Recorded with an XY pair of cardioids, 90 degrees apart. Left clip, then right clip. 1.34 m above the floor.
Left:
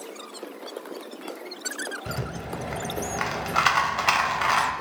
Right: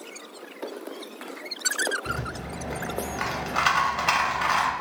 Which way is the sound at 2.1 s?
25° left.